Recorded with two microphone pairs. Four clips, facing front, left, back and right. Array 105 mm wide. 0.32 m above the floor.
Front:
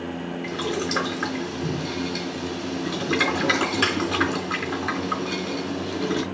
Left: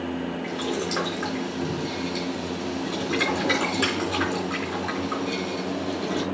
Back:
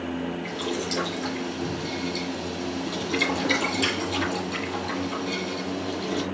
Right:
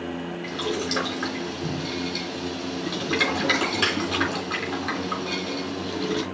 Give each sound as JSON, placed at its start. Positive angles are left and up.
{"t": 0.4, "sound": "boiling", "azimuth_deg": -5, "distance_m": 3.5}